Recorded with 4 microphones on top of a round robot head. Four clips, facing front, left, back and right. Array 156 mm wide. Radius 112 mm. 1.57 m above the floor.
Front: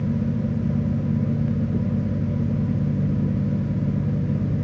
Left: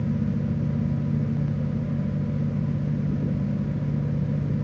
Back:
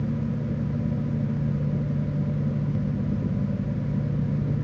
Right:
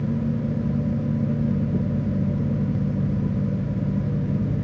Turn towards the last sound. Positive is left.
No sound to turn to.